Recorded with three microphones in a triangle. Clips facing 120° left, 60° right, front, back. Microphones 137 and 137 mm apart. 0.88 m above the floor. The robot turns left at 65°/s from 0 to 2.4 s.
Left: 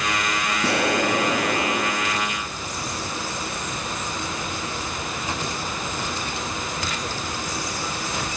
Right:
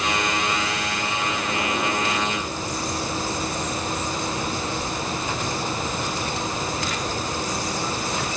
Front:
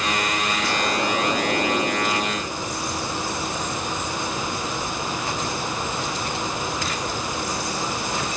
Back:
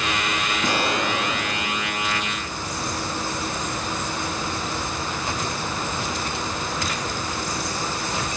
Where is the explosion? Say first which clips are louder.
Left 6 dB, back 2 dB; 110° left; by 2.7 s 5° right.